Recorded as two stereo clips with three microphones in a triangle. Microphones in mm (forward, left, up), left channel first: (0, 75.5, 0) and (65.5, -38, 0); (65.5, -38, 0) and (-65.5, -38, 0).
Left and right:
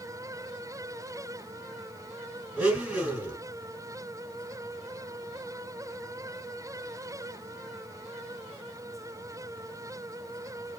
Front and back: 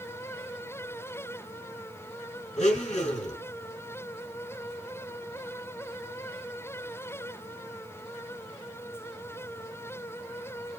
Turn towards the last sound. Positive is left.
turn(degrees=20)